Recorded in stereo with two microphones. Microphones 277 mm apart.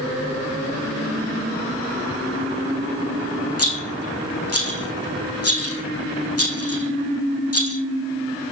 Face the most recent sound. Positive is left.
turn(degrees=60)  # may be behind; listen again after turning